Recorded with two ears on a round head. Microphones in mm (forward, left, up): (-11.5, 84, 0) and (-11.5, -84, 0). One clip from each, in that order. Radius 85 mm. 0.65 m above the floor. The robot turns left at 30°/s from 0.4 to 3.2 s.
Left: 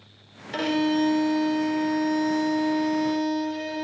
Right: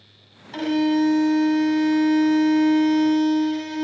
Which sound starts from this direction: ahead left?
A violin, at 0.5 s.